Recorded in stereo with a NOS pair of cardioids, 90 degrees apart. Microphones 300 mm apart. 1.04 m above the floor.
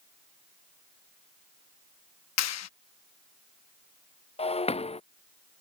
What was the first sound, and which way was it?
A clap, 60° left.